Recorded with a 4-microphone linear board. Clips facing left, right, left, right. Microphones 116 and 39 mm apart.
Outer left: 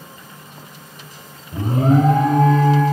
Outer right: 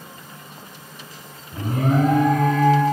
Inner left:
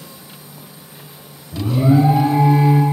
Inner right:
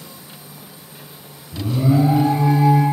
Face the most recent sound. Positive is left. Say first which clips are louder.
# outer left 5 dB, inner left 3 dB
turn(degrees=30)  # may be behind; listen again after turning